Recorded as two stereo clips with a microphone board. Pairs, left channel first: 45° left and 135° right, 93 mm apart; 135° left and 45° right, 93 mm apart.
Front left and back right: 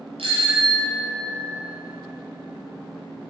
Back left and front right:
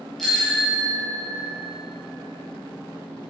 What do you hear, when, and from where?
0.2 s a bicycle bell: 135° right, 5.5 m; by 1.6 s 155° right, 5 m